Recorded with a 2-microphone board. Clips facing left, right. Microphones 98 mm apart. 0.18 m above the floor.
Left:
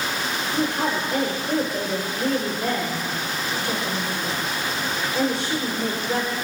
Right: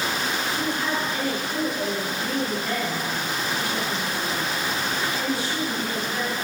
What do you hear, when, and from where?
0.5 s a woman speaking: 75° left (ahead or behind), 8.5 m